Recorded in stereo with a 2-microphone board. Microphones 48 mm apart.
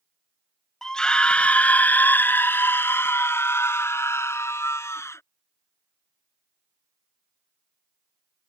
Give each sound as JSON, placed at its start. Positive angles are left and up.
{"t": 0.8, "sound": "a scream", "side_deg": 10}